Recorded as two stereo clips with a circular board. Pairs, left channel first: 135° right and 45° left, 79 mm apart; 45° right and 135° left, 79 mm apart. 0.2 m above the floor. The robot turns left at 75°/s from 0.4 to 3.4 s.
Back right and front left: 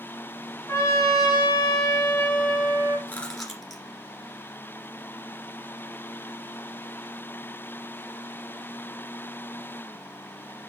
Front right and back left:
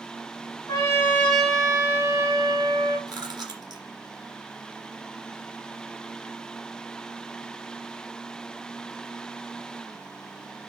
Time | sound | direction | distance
0.7 | a trumpet | 80° right | 2.5 m
3.1 | chewing | 165° left | 2 m